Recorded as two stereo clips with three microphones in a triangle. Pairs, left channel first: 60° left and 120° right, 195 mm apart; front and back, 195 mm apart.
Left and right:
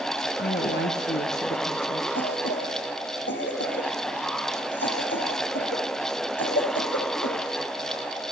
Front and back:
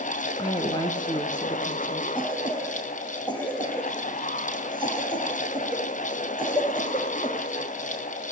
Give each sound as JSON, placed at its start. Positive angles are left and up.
{"t": 0.4, "sound": "a woman speaking", "azimuth_deg": 65, "distance_m": 3.0}
{"t": 2.1, "sound": "a cough", "azimuth_deg": 65, "distance_m": 5.0}